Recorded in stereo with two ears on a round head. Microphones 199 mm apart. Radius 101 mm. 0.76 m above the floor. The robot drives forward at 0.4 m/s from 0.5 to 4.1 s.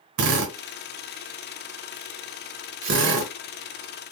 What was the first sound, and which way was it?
A drill, 75° right (ahead or behind).